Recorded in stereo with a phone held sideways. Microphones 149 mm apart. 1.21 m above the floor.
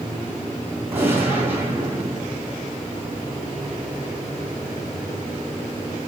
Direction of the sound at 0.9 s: 15° right (ahead or behind).